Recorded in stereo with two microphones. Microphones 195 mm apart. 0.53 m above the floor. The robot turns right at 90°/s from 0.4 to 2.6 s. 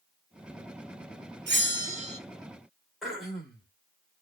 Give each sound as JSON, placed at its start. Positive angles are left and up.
{"t": 1.5, "sound": "a bell", "azimuth_deg": -100, "distance_m": 0.6}
{"t": 3.0, "sound": "throat clearing", "side_deg": 0, "distance_m": 1.1}